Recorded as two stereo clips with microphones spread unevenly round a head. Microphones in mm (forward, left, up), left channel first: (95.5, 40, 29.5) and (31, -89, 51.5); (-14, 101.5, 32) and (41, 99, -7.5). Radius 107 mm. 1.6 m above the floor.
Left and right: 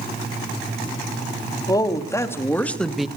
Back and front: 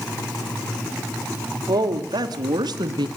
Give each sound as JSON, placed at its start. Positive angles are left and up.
{"t": 1.7, "sound": "a woman speaking", "azimuth_deg": -5, "distance_m": 3.5}